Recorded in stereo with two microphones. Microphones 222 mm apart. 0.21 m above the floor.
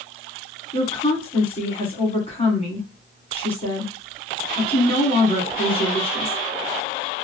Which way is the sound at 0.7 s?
25° left (ahead or behind).